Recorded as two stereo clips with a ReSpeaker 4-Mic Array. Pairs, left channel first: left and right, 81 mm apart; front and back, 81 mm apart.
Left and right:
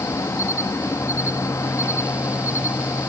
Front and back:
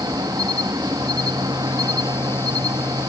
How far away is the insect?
About 1.6 m.